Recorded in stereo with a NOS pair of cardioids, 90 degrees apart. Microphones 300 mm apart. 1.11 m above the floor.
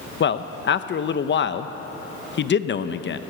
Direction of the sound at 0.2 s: 40° left.